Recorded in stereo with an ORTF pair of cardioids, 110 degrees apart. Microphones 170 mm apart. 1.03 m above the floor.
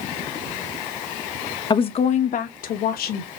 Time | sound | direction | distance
1.7 | a woman speaking | 25° left | 0.7 m